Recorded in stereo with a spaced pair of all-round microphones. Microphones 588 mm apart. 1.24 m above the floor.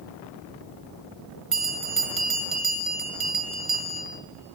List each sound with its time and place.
1.5 s a bell: 60° right (ahead or behind), 0.9 m